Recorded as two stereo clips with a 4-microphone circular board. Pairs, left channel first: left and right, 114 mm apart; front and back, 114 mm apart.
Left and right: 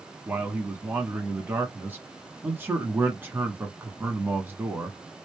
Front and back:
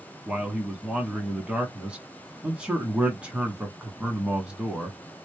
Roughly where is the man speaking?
Behind right.